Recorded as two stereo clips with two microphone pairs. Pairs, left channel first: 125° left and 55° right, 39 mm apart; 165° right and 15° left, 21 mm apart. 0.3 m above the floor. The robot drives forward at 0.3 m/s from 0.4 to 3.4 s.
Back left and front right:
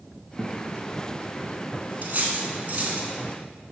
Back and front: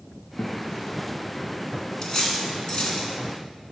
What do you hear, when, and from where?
0.4 s a guitar: 145° right, 1.4 m
2.0 s cutlery clinking: 105° right, 1.8 m; by 3.1 s 115° right, 1.9 m